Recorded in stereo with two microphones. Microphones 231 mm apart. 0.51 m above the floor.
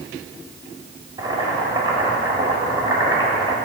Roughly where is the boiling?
Centre.